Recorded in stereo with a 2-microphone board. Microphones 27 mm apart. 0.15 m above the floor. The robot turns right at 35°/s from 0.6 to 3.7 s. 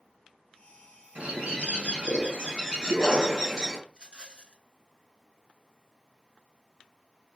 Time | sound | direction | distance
1.1 | a bird | 85° right | 3 m
3.9 | a rattle | 35° right (ahead or behind) | 0.6 m